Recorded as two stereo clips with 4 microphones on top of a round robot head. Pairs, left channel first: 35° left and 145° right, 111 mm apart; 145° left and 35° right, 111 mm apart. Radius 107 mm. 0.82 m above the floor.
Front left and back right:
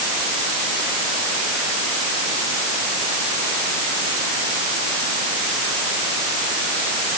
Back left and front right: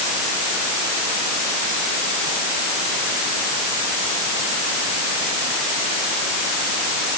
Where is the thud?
I don't hear a thud.